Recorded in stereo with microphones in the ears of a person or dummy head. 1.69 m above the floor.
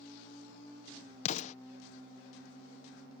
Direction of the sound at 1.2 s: 45° left (ahead or behind).